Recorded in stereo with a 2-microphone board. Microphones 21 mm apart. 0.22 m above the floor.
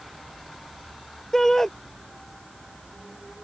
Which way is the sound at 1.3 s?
25° left (ahead or behind).